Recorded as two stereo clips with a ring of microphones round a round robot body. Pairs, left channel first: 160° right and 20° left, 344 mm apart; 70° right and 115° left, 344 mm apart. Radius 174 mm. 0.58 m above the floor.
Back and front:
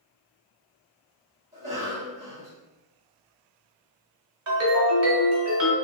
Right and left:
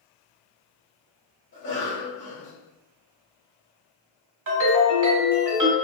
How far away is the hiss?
No hiss in this recording.